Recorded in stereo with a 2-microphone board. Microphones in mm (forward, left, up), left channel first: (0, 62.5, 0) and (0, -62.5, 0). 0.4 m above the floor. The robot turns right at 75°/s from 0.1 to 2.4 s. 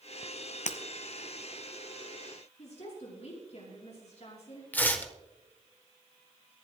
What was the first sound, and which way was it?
Breaking glass, 80° left.